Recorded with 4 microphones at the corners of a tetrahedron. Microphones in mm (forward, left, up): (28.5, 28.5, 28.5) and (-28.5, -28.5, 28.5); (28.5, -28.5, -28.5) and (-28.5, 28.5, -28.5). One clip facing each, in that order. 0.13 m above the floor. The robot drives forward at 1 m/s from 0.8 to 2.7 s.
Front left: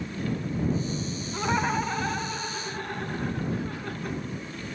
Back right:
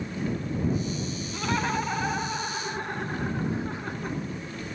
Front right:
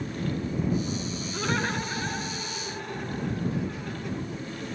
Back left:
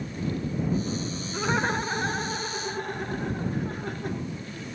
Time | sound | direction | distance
1.3 | laughter | 70° left | 1.1 m